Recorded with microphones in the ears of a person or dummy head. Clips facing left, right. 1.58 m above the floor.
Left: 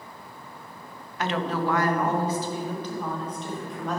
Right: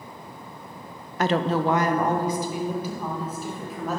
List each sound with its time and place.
1.2 s a woman speaking: 40° right (ahead or behind), 0.7 m; by 4.0 s 5° right (ahead or behind), 3.5 m